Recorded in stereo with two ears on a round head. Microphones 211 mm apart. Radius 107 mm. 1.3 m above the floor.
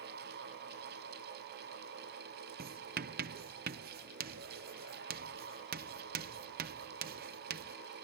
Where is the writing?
40° right (ahead or behind).